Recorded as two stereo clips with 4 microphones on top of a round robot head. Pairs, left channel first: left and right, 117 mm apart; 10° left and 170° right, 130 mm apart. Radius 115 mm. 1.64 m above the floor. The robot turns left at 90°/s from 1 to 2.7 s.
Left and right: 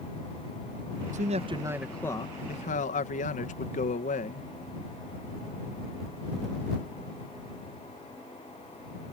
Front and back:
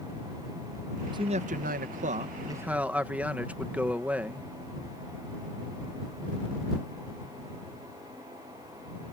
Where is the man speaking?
110° right; by 4.5 s 105° left.